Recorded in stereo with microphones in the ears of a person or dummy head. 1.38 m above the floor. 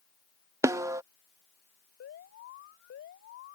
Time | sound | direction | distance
0.6 | a snare drum | 15° right (ahead or behind) | ?
2.0 | an alarm | 65° left (ahead or behind) | ?